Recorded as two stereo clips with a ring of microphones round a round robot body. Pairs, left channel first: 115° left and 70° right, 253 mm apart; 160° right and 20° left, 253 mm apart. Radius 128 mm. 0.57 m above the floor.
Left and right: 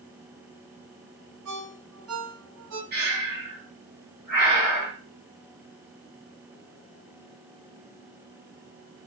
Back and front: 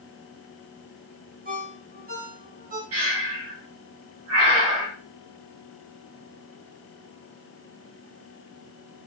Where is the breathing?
10° right, 3 m.